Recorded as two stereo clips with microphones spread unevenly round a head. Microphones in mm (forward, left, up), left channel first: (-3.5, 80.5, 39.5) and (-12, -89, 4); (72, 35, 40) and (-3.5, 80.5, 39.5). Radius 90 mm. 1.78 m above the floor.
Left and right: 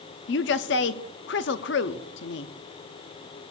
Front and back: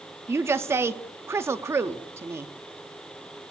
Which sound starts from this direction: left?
A woman speaking, at 0.3 s.